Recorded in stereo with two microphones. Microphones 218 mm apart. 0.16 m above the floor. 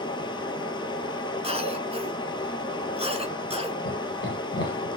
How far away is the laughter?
About 2 m.